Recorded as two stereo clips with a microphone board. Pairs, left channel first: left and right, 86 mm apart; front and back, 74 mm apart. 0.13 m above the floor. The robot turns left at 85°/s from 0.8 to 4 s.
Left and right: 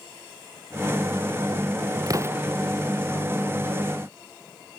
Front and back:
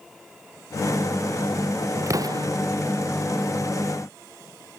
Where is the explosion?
135° right; by 2.5 s 170° right.